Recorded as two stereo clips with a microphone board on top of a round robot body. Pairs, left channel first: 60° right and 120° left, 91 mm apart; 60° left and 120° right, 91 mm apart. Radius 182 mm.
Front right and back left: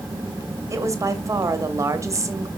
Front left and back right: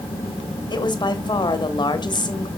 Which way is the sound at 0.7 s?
70° left.